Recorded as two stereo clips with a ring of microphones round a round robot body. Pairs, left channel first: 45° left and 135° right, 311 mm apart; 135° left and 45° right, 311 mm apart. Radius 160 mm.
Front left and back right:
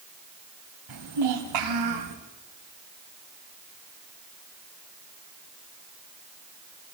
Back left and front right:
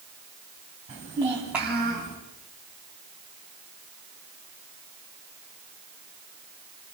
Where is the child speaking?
115° right, 2.5 m; by 2.1 s 140° right, 4 m.